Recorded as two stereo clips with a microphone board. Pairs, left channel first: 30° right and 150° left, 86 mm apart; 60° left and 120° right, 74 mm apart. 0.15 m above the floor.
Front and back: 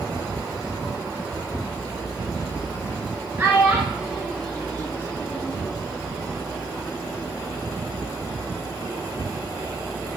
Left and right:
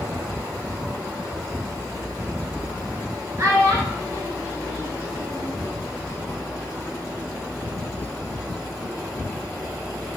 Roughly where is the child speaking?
Behind right.